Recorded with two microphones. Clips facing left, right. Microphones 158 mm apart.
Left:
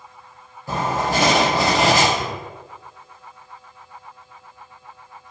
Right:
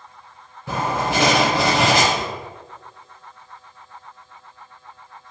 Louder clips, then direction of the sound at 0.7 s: Even; 80° right.